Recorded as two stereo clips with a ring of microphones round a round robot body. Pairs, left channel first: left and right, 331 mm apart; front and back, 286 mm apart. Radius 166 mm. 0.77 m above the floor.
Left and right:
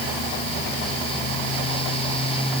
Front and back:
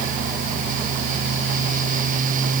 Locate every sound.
Only background noise.